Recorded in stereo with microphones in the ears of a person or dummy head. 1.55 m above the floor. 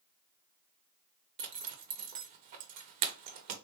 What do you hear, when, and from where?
1.4 s a zipper: 45° right (ahead or behind), 0.6 m